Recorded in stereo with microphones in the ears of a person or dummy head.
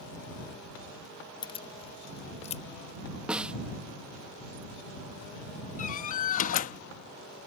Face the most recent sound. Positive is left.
turn(degrees=40)  # may be behind; listen again after turning